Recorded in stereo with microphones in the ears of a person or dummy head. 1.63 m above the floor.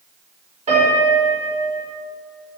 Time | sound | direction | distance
0.7 | a piano | 35° right (ahead or behind) | 5 m